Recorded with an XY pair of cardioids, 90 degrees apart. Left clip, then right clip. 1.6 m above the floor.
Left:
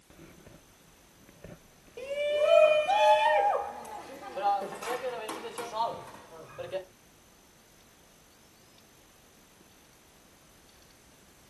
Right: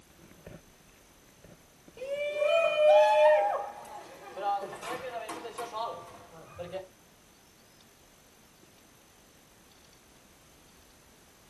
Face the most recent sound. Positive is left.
turn(degrees=55)